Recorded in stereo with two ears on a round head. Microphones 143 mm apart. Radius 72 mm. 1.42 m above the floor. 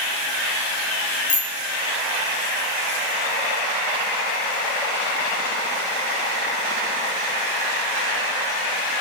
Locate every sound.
1.3 s a bicycle bell: 45° left (ahead or behind), 6.5 m